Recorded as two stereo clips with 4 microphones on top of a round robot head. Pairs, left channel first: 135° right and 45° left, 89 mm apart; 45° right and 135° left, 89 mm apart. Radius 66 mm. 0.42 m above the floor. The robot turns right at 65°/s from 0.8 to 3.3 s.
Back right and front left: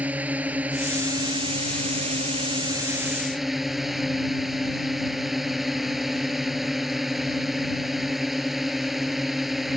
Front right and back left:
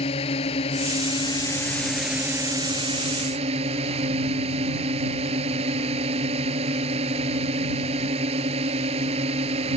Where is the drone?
30° right; by 9.8 s 135° left.